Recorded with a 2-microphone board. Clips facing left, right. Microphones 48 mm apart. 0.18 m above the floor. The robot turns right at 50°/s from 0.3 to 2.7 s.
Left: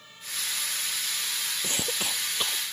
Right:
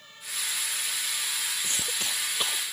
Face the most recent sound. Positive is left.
turn(degrees=-165)